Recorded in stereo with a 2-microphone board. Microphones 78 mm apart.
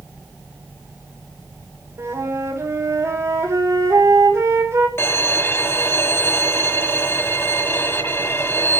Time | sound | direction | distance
2.0 | a flute | 40° right (ahead or behind) | 5 m
5.0 | a violin | 35° left (ahead or behind) | 1.7 m